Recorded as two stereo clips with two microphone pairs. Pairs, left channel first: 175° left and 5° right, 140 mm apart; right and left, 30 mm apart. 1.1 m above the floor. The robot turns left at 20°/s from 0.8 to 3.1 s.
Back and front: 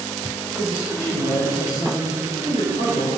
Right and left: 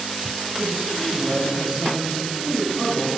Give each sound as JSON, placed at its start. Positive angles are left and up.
{"t": 0.6, "sound": "a man speaking", "azimuth_deg": 180, "distance_m": 5.5}